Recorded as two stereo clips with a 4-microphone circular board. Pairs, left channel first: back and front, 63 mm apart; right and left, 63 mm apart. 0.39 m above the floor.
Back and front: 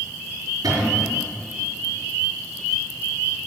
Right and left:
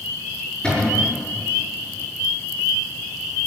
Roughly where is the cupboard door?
Ahead.